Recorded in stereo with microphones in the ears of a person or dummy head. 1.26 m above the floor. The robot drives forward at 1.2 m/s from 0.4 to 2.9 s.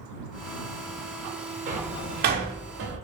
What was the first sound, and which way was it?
A door slam, 40° right (ahead or behind).